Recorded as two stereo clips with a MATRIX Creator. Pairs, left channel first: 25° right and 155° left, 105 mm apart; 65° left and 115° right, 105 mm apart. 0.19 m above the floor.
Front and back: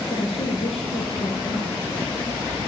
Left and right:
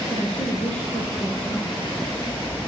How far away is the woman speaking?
About 7.5 m.